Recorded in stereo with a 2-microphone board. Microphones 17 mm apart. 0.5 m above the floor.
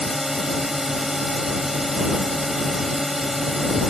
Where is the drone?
25° right (ahead or behind).